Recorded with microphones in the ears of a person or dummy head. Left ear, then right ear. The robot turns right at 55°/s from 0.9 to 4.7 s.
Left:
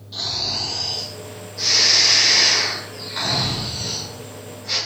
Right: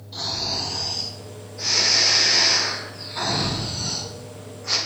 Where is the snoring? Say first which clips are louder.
Left 2 dB; 25° left, 1.4 m; by 4.8 s 125° right, 1.4 m.